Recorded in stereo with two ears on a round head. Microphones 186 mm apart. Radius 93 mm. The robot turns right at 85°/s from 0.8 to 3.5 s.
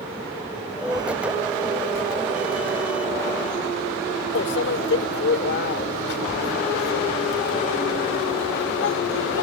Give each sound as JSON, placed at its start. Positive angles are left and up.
{"t": 4.3, "sound": "a microwave", "side_deg": 55}